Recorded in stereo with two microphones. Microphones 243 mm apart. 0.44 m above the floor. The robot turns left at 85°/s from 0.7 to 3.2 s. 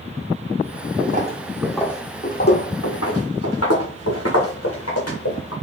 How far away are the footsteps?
About 1.2 m.